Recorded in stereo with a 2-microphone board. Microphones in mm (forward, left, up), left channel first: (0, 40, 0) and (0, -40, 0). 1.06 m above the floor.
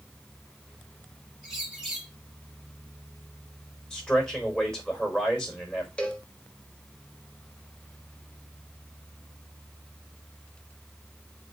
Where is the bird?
5° right (ahead or behind), 1.9 m.